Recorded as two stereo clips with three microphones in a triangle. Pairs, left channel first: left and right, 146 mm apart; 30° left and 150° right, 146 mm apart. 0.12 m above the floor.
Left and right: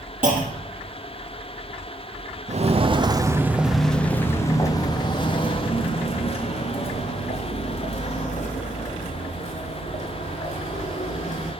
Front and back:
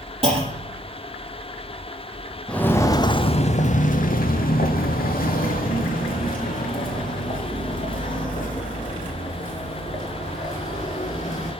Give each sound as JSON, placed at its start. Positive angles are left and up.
{"t": 0.2, "sound": "a clunk", "azimuth_deg": -105, "distance_m": 3.5}
{"t": 2.5, "sound": "footsteps", "azimuth_deg": -55, "distance_m": 1.1}